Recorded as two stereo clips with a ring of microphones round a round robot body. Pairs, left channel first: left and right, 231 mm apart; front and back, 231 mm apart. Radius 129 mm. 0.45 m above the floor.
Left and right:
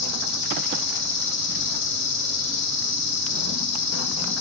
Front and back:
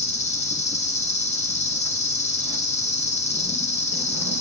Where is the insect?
60° left, 7 m.